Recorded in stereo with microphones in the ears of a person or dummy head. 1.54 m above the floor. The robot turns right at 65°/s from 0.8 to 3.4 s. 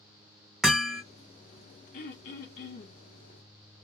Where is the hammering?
5° left (ahead or behind), 0.5 m; by 1.0 s 10° right (ahead or behind), 0.5 m.